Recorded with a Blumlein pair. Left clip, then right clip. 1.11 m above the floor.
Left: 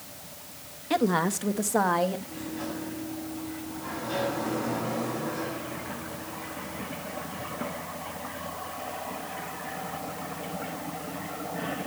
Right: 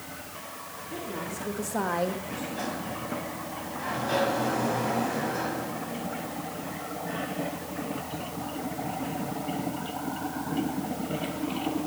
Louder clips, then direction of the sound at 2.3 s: Right 3 dB; 65° right.